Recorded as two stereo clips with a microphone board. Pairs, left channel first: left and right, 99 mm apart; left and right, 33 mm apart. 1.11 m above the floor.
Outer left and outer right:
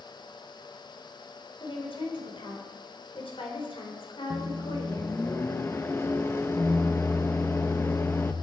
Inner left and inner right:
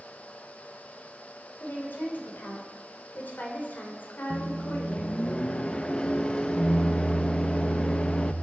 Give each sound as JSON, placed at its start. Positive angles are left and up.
{"t": 1.6, "sound": "a woman speaking", "side_deg": 60, "distance_m": 4.0}
{"t": 4.3, "sound": "a microwave", "side_deg": 25, "distance_m": 0.8}